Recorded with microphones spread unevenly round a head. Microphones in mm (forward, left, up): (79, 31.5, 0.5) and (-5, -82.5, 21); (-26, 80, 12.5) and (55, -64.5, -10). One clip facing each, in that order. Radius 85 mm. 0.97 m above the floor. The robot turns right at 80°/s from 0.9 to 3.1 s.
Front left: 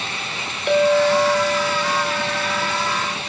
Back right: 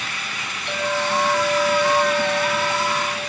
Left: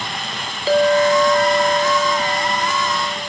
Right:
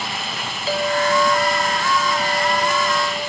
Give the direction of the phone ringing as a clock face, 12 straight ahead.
No phone ringing in this recording.